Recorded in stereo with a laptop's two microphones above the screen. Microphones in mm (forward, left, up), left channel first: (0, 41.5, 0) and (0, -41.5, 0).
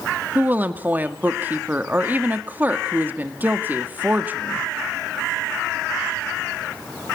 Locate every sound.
0.3 s a woman speaking: 20° right (ahead or behind), 1.9 m